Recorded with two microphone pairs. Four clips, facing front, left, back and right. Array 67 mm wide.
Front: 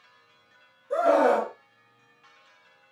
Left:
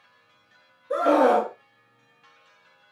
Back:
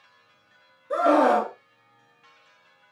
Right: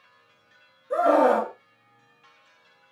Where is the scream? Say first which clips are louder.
Even, back 2 dB; 160° left, 1.3 m.